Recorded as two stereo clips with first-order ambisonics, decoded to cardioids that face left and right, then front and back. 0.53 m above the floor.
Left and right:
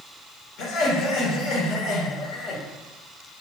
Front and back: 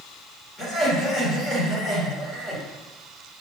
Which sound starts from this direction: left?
Laughter, at 0.6 s.